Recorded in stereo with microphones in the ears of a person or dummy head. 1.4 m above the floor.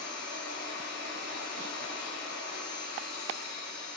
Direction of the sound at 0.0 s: 85° left.